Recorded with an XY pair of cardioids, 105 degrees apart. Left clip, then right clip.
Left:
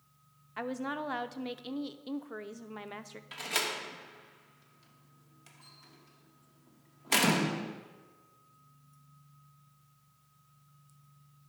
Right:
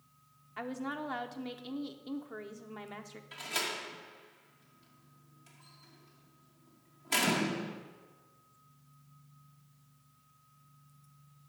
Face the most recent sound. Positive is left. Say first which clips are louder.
# left 3 dB
turn(degrees=45)